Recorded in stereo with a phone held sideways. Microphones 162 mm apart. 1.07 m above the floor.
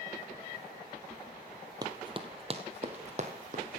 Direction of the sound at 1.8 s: 25° right (ahead or behind).